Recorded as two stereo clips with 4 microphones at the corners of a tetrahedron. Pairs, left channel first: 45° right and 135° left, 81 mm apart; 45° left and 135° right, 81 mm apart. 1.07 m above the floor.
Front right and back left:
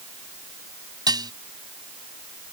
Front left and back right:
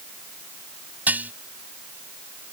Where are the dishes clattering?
160° left.